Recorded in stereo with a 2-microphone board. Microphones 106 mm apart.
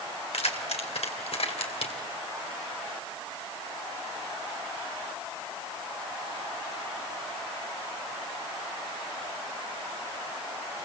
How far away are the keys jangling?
About 3 m.